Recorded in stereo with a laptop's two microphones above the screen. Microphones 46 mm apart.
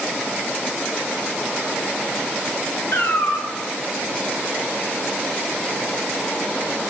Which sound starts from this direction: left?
A cat meowing, at 2.9 s.